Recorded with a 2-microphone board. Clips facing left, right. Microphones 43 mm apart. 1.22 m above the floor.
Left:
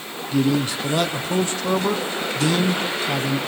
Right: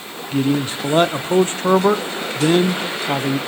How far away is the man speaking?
About 0.6 m.